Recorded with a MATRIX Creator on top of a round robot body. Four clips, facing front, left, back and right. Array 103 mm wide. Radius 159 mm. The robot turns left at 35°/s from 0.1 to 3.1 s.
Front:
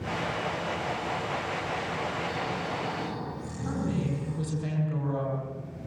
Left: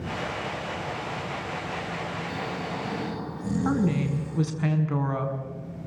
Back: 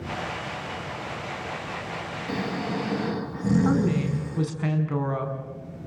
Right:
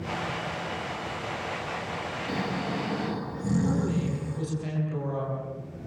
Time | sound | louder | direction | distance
2.3 | snoring | right 2 dB, back 3 dB | 145° right | 8 m
3.6 | a woman speaking | left 3 dB, back 7 dB | 130° left | 5.5 m